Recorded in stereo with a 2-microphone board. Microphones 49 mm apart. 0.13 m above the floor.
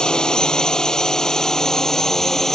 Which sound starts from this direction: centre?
A drone, at 0.0 s.